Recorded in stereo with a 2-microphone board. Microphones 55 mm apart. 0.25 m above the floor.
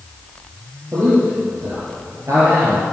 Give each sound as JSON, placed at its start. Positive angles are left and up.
{"t": 0.9, "sound": "a man speaking", "side_deg": -45, "distance_m": 5.0}